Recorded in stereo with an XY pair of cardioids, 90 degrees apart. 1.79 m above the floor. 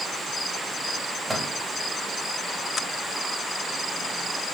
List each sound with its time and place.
1.3 s a microwave: 25° right, 4.5 m